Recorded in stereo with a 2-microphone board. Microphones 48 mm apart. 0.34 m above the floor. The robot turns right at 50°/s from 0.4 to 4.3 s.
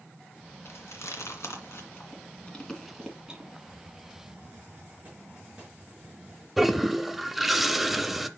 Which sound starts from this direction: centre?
A toilet flushing, at 6.6 s.